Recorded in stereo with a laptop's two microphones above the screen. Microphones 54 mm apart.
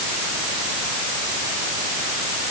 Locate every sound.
Only background noise.